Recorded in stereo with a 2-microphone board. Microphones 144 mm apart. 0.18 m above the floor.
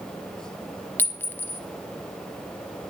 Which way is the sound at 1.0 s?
15° left (ahead or behind).